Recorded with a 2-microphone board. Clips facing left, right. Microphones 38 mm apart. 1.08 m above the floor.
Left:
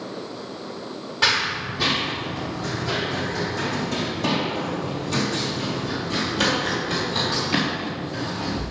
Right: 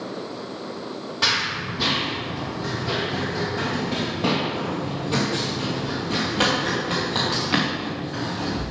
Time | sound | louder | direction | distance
1.2 | running footsteps | left 2 dB | 5° left (ahead or behind) | 1.6 m